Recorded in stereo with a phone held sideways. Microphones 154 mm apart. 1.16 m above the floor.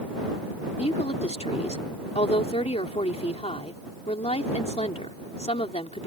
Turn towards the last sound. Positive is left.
turn(degrees=40)  # may be behind; listen again after turning